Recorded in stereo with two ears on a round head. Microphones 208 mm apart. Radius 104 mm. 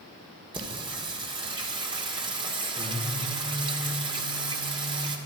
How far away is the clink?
No clink in this recording.